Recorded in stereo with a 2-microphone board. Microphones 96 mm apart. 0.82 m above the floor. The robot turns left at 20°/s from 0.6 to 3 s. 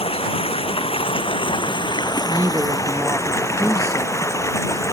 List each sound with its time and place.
0.0 s running water: 80° left; by 4.9 s 30° left
2.3 s a woman speaking: 25° right (ahead or behind); by 4.2 s 35° right (ahead or behind)